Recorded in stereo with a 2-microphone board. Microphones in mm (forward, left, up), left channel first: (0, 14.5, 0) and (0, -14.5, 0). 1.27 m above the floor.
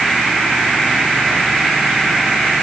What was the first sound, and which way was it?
Only background noise.